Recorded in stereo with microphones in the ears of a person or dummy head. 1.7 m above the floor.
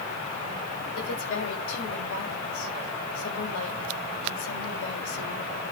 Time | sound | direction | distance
0.9 | a woman speaking | 70° left (ahead or behind) | 6.5 m